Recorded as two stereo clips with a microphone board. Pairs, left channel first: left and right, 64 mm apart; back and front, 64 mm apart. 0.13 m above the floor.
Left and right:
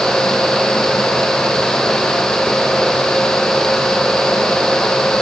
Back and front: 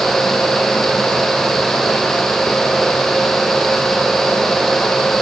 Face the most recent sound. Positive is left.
No sound to turn to.